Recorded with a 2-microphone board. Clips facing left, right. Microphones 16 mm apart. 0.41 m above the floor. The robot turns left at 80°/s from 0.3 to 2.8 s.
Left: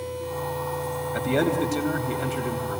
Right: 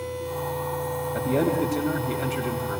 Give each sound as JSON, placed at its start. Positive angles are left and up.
{"t": 1.1, "sound": "a man speaking", "azimuth_deg": 85, "distance_m": 3.0}